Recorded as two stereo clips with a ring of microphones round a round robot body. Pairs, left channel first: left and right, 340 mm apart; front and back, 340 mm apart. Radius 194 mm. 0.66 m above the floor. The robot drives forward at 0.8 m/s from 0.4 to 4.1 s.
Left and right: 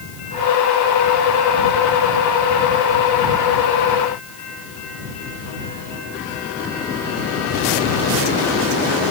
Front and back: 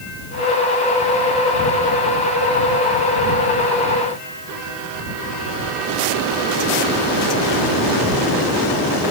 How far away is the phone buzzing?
I don't hear a phone buzzing.